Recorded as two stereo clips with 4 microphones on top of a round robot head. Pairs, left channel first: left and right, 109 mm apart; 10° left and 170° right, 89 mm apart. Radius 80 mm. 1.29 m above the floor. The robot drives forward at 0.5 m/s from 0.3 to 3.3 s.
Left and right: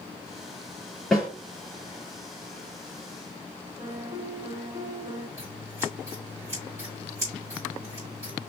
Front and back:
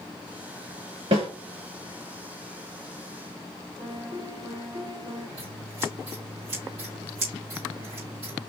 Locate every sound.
1.1 s a snare drum: 175° right, 2.5 m
3.8 s a piano: 155° right, 2.5 m
5.4 s scissors: 160° right, 2.5 m